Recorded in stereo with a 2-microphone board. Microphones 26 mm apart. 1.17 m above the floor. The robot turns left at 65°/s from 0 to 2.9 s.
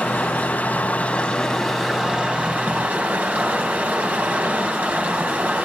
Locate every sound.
0.0 s running water: 110° left, 3.5 m; by 5.7 s 75° right, 3.5 m